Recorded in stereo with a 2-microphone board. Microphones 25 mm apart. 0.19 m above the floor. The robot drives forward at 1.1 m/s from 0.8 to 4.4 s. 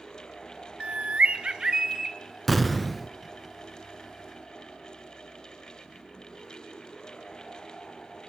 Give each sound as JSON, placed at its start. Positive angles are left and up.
{"t": 0.8, "sound": "a bird", "side_deg": -45, "distance_m": 0.8}
{"t": 2.5, "sound": "an explosion", "side_deg": 0, "distance_m": 0.9}